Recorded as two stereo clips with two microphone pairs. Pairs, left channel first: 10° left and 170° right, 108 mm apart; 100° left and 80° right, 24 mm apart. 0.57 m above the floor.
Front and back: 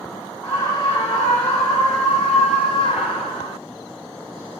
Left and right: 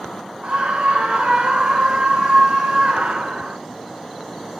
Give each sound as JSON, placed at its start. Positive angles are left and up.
{"t": 0.4, "sound": "a scream", "azimuth_deg": -40, "distance_m": 5.5}